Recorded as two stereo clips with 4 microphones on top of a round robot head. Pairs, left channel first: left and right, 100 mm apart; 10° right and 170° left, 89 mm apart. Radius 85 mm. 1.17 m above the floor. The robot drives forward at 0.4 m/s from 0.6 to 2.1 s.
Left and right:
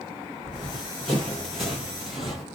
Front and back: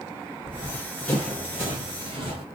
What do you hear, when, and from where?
0.4 s running footsteps: 10° left, 1.3 m; by 2.5 s 175° right, 1.5 m